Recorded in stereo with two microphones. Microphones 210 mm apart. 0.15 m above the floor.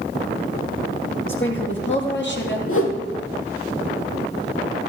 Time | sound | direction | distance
1.3 | a woman speaking | 65° left (ahead or behind) | 4.5 m
2.7 | a whoosh | 75° left (ahead or behind) | 3 m